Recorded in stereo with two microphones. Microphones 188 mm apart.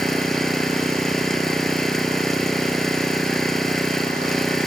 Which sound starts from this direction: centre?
An engine running, at 0.0 s.